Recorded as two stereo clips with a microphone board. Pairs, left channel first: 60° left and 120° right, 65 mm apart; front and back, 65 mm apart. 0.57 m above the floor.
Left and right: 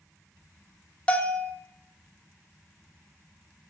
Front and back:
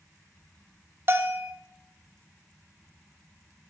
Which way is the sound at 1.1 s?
130° left.